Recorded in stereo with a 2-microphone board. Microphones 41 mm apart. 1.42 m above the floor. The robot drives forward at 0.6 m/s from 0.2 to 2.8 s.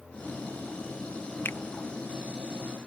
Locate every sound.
1.4 s a finger snap: 55° left (ahead or behind); by 1.6 s 45° left (ahead or behind)